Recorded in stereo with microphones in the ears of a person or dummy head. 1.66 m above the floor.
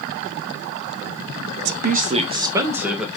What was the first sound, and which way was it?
A woman speaking, 60° right (ahead or behind).